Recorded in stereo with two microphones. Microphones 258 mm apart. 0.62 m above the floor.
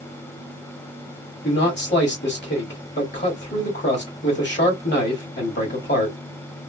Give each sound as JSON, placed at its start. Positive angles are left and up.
{"t": 1.4, "sound": "a man speaking", "side_deg": 45, "distance_m": 1.5}